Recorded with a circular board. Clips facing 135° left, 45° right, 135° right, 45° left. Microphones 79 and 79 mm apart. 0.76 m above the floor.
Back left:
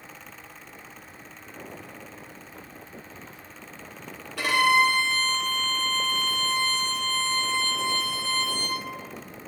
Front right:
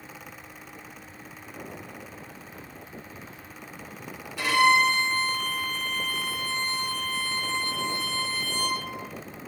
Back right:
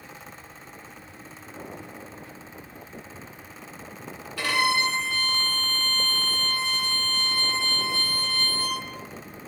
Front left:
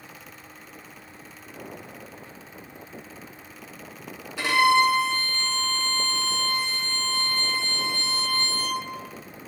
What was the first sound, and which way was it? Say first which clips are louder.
A violin: even, front left 5 dB; 115° left.